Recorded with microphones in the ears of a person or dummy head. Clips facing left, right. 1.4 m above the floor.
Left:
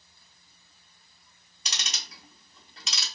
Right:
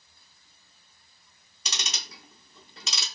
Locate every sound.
1.6 s ticking: 75° right (ahead or behind), 0.9 m